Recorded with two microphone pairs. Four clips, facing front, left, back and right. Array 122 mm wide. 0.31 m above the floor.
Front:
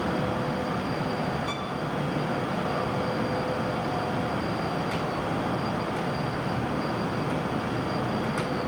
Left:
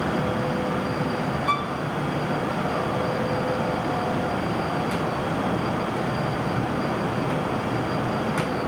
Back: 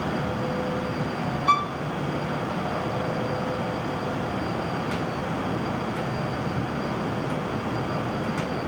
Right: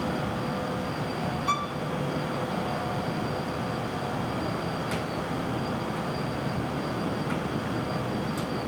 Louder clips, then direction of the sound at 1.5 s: Left 3 dB, back 10 dB; 170° left.